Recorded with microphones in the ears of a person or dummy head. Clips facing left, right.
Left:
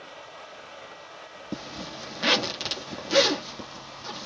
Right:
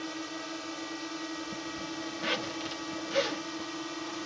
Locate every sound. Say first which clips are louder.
0.0 s a drone: right 7 dB; 60° right (ahead or behind)
1.5 s a zipper: left 1 dB; 70° left (ahead or behind)